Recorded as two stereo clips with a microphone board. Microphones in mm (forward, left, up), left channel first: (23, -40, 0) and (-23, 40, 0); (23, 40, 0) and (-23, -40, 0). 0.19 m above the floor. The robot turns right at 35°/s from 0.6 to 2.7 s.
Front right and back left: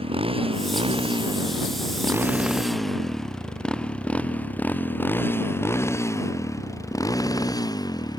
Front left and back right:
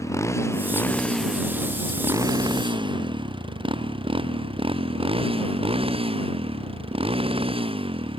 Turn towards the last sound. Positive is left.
turn(degrees=-105)